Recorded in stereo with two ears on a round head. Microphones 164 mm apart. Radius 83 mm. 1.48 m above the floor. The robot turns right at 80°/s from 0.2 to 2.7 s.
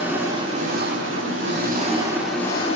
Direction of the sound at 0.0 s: 170° right.